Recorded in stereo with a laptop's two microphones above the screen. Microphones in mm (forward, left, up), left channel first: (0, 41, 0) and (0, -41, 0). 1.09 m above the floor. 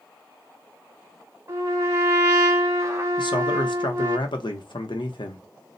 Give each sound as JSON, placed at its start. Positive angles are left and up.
{"t": 1.5, "sound": "a trumpet", "side_deg": -30, "distance_m": 1.1}
{"t": 3.2, "sound": "a man speaking", "side_deg": 80, "distance_m": 0.8}